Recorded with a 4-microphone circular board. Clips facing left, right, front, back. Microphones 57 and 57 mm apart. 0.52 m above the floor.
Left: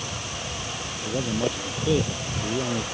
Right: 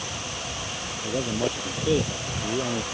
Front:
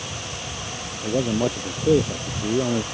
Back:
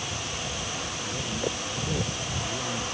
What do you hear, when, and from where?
1.0 s a man speaking: 5° right